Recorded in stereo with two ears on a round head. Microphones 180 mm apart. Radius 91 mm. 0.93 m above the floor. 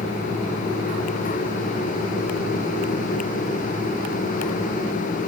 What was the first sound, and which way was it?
Only background noise.